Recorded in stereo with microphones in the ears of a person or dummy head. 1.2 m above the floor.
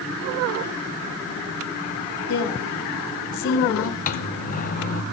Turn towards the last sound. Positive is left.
turn(degrees=45)  # may be behind; listen again after turning